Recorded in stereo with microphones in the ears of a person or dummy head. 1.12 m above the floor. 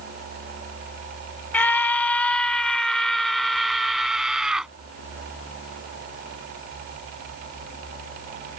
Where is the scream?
10° left (ahead or behind); by 4.7 s centre (ahead or behind).